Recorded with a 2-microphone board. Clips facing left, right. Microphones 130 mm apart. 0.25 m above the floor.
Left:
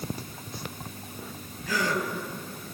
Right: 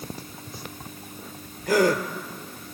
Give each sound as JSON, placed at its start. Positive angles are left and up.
{"t": 1.7, "sound": "a gasp", "side_deg": -50, "distance_m": 2.0}